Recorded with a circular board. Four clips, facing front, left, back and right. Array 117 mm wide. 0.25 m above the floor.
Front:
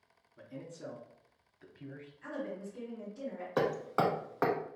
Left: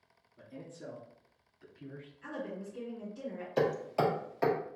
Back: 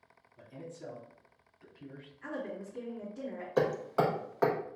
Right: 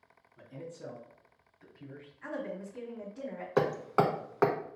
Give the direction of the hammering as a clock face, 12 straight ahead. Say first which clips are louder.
Right 2 dB, back 2 dB; 3 o'clock.